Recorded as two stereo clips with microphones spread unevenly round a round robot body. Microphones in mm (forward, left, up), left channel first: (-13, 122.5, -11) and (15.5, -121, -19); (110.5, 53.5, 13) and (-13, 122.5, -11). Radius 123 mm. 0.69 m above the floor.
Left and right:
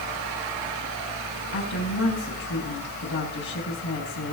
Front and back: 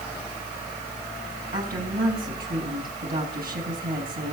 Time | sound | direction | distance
1.5 | a woman speaking | 145° left | 6.5 m